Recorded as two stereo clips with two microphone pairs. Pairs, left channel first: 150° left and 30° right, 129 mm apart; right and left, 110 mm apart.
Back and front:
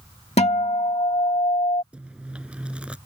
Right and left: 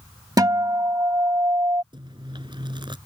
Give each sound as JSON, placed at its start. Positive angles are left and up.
{"t": 0.4, "sound": "a guitar", "azimuth_deg": 140}
{"t": 1.9, "sound": "chewing", "azimuth_deg": 50}